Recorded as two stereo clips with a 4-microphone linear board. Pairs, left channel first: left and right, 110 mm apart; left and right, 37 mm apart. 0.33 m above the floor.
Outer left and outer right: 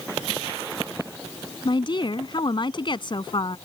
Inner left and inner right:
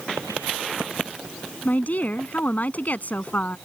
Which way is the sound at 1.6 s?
45° left (ahead or behind).